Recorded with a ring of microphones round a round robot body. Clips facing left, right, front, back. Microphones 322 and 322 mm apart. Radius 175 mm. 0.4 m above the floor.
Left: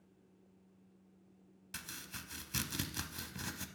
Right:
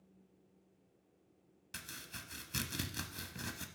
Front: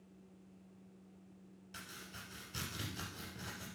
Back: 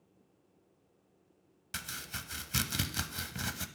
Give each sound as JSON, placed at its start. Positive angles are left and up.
{"t": 1.7, "sound": "chopping", "azimuth_deg": 175, "distance_m": 0.7}